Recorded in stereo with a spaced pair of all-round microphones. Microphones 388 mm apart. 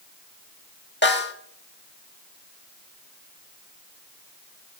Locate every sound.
1.0 s a snare drum: 25° left (ahead or behind), 1.8 m